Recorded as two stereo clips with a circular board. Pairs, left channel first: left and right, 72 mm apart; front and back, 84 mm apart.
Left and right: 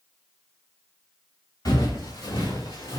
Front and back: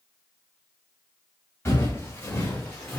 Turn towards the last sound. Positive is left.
turn(degrees=75)